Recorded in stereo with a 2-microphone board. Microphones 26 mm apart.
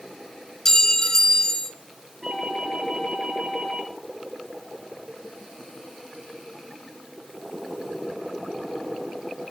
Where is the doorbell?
5° right (ahead or behind), 9 m.